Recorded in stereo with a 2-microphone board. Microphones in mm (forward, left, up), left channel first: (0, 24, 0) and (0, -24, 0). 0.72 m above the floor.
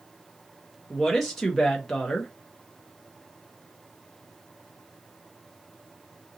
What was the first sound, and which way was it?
A woman speaking, 10° left (ahead or behind).